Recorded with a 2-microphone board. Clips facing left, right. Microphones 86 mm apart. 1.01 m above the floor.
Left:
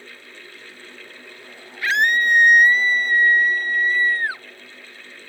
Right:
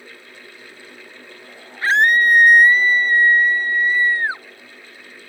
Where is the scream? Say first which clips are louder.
Right 4 dB; 30° right (ahead or behind); by 4.4 s 25° right (ahead or behind).